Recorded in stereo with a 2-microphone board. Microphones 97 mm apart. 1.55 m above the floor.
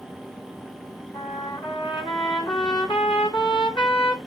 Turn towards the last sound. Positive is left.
turn(degrees=60)  # may be behind; listen again after turning